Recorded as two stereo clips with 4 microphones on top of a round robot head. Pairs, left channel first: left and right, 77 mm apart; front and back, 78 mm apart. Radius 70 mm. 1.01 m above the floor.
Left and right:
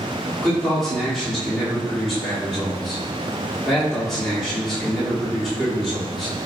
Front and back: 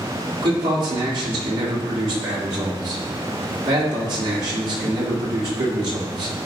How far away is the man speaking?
About 2.5 m.